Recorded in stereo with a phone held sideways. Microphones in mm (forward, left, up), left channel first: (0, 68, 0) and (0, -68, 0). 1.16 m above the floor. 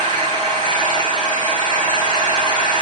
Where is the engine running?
35° right (ahead or behind), 4 m.